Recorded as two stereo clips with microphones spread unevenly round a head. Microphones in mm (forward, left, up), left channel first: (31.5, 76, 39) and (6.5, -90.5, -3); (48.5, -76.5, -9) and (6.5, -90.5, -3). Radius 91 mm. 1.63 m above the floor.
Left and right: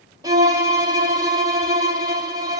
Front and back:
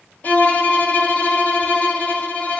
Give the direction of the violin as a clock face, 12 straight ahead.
1 o'clock.